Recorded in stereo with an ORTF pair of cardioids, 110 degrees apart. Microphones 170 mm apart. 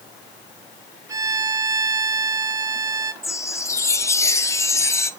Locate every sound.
1.1 s a violin: 20° right, 1.9 m
3.2 s a chime: 15° left, 1.0 m